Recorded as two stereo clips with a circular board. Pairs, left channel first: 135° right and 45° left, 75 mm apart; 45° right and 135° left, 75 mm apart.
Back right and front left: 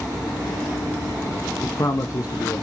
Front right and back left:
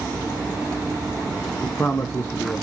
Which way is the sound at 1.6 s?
110° right.